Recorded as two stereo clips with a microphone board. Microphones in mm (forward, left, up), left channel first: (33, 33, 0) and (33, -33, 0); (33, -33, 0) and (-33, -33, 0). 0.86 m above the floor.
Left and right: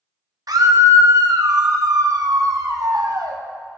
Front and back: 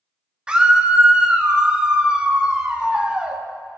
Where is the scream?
105° right, 1.3 m.